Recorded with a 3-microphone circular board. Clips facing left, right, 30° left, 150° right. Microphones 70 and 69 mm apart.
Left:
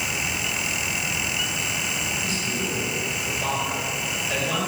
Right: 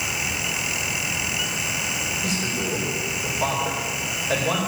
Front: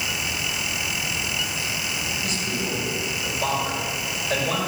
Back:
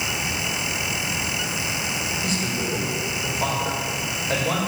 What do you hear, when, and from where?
2.2 s a man speaking: 110° right, 4.5 m